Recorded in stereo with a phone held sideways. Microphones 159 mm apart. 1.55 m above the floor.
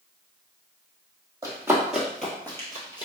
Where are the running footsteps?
20° right (ahead or behind), 1.8 m; by 3.0 s 30° left (ahead or behind), 1.7 m.